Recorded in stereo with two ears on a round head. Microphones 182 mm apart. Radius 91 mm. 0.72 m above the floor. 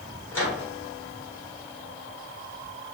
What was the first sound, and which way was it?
A microwave, 10° left (ahead or behind).